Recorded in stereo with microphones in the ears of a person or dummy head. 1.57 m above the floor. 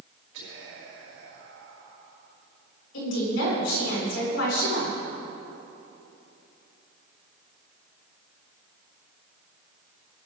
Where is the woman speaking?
85° left, 6 m.